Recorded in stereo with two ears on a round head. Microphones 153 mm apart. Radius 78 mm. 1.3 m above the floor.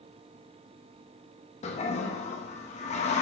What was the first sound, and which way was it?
A toilet flushing, 40° left (ahead or behind).